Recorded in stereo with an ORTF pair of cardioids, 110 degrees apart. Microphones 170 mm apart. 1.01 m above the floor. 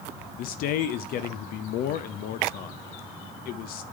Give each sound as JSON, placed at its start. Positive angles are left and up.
{"t": 0.4, "sound": "a man speaking", "azimuth_deg": 70, "distance_m": 0.6}